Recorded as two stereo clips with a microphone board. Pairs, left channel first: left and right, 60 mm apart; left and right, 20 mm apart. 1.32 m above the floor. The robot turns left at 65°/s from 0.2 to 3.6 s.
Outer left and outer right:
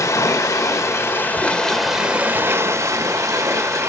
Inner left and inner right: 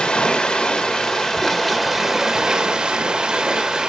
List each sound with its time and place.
0.0 s running water: 105° left, 1.9 m; by 3.9 s 115° right, 1.9 m